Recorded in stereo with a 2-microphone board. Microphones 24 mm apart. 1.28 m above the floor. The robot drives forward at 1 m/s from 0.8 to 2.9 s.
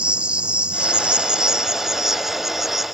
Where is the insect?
50° right (ahead or behind); by 3.0 s 15° right (ahead or behind).